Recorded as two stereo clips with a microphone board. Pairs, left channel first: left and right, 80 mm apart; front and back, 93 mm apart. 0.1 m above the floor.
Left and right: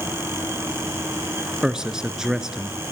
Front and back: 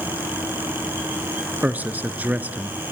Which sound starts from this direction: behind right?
A man speaking, at 1.6 s.